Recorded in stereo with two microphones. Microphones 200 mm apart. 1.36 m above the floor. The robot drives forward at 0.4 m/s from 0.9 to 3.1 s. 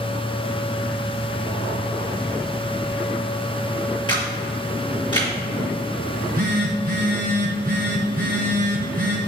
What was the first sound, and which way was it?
A camera shutter, 25° left (ahead or behind).